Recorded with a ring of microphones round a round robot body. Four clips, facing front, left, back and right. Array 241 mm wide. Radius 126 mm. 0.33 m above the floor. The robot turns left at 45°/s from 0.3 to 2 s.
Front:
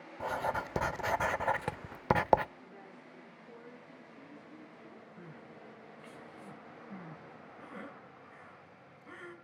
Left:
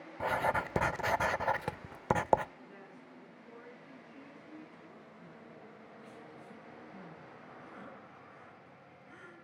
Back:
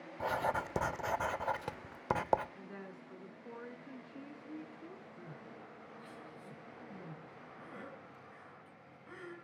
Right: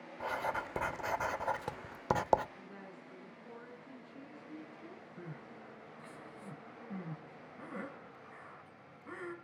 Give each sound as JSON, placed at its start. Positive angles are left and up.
{"t": 0.2, "sound": "writing", "azimuth_deg": 95, "distance_m": 0.6}
{"t": 2.5, "sound": "a woman speaking", "azimuth_deg": -170, "distance_m": 3.5}
{"t": 5.2, "sound": "crying", "azimuth_deg": -75, "distance_m": 3.5}